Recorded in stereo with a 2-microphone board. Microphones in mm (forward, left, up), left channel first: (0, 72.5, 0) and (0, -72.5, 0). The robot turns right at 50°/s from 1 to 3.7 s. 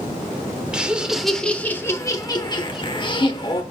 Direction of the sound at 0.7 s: 10° right.